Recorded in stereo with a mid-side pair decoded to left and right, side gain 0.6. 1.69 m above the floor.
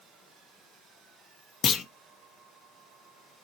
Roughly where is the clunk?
Ahead left.